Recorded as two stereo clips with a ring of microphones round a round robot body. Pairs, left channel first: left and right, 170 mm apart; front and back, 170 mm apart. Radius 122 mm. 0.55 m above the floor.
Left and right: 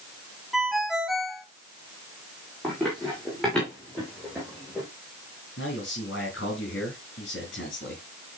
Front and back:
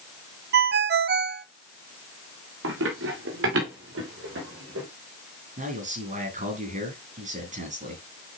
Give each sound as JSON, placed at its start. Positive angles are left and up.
{"t": 0.5, "sound": "a ringtone", "azimuth_deg": 180, "distance_m": 0.6}
{"t": 2.6, "sound": "running footsteps", "azimuth_deg": 180, "distance_m": 5.0}
{"t": 5.6, "sound": "a man speaking", "azimuth_deg": 135, "distance_m": 6.5}